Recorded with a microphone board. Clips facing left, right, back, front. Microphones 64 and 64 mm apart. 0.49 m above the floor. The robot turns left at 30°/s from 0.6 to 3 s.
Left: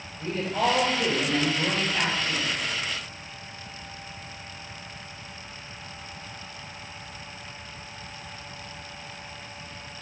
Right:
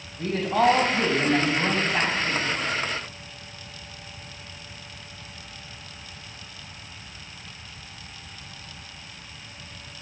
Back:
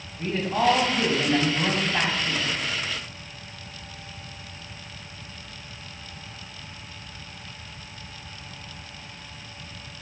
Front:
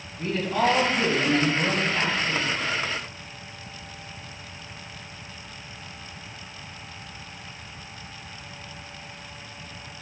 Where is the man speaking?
105° right, 2.5 m; by 2.5 s 160° right, 2.5 m.